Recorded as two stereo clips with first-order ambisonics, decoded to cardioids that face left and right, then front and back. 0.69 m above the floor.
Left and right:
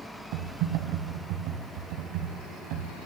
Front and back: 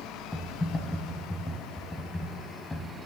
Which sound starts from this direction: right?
Typing on a keyboard, at 0.3 s.